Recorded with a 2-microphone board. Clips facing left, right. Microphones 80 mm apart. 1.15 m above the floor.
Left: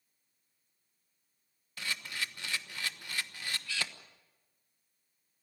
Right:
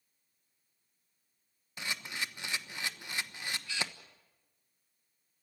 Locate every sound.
1.8 s a camera shutter: 20° right (ahead or behind), 1.1 m